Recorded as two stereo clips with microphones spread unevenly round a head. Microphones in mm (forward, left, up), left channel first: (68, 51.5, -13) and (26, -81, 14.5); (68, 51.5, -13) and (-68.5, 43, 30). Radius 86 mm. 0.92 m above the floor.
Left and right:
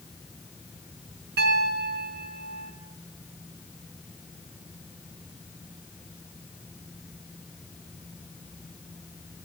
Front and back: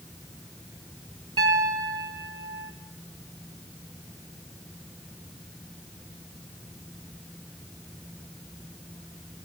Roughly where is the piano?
Right.